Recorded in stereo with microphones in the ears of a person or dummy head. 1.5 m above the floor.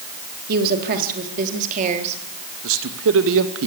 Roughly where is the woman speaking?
Right.